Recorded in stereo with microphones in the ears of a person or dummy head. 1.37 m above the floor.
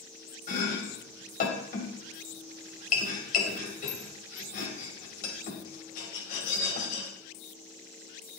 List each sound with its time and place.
0.5 s chopping: 50° left (ahead or behind), 3 m